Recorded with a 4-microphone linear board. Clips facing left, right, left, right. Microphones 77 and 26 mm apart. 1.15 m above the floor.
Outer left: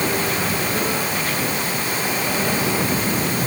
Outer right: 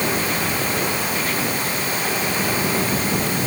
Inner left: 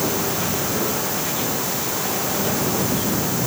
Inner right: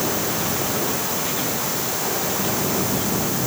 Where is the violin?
I don't hear a violin.